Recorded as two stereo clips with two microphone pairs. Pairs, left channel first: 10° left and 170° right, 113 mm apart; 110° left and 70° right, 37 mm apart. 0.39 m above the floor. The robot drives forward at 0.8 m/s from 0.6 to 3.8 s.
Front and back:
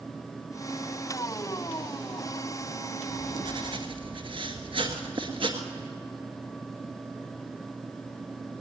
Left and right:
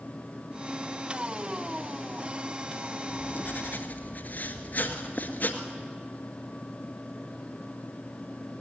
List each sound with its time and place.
3.1 s writing: 140° left, 1.2 m; by 5.6 s 155° left, 1.7 m